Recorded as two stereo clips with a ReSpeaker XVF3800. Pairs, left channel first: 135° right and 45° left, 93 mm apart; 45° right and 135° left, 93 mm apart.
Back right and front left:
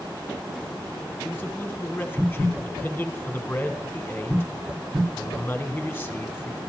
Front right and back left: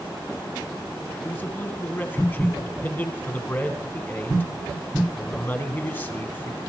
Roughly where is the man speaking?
Right.